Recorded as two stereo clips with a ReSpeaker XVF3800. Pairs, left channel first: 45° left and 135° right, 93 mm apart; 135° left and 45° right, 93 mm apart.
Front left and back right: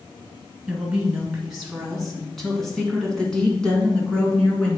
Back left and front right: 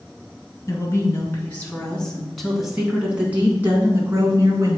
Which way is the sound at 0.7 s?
145° left.